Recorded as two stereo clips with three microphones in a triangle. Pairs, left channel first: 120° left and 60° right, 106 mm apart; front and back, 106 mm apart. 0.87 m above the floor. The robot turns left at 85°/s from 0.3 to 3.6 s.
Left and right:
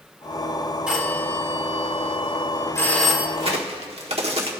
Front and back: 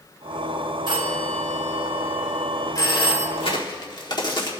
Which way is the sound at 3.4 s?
25° right.